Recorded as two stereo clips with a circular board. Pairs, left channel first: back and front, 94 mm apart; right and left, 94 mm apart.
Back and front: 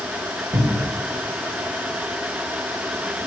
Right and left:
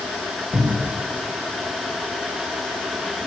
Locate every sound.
0.5 s a cupboard door: 15° left, 4.5 m